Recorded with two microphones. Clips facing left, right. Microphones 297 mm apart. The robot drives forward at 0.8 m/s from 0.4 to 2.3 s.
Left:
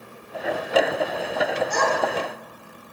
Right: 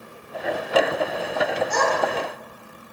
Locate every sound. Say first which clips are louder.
1.7 s a child speaking: right 1 dB; 45° right (ahead or behind), 1.1 m; by 1.9 s 50° right (ahead or behind), 1.0 m